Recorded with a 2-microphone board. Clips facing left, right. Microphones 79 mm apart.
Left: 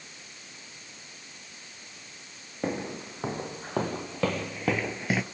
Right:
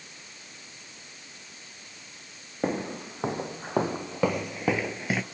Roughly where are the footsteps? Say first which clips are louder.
Right 2 dB; centre.